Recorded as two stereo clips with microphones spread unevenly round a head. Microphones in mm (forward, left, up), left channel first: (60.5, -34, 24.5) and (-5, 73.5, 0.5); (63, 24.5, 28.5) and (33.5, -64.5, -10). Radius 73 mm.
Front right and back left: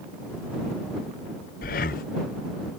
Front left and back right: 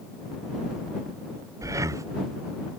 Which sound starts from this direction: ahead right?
Breathing, at 1.6 s.